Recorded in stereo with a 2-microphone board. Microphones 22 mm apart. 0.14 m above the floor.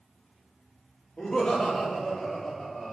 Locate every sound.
1.2 s laughter: 55° left (ahead or behind), 4 m; by 2.9 s 40° left (ahead or behind), 5 m